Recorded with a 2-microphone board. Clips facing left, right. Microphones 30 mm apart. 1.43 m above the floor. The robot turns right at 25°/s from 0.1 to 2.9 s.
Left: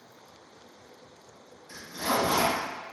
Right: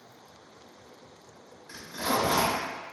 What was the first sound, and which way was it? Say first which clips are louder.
A zipper: even; 50° right (ahead or behind).